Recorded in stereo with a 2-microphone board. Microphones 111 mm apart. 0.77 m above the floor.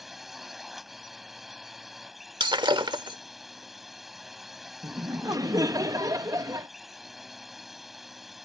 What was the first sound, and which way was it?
A drone, centre (ahead or behind).